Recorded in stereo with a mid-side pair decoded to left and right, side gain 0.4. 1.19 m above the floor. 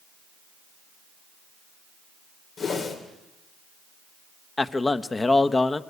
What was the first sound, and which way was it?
A whoosh, 65° left.